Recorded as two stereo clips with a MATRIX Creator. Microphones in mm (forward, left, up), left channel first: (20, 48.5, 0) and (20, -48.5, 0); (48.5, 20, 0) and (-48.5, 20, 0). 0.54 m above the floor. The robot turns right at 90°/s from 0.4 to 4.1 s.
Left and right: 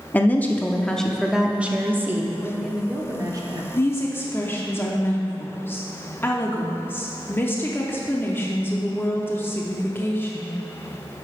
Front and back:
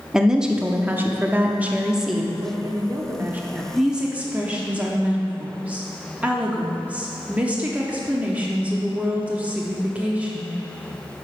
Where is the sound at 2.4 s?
155° left, 0.9 m; by 3.6 s 90° right, 0.9 m.